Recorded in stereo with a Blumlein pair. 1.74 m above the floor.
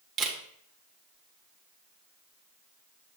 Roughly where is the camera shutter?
Ahead.